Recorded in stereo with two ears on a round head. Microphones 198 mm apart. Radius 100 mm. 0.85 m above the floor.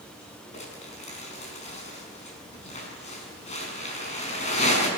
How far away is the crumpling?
About 5.5 m.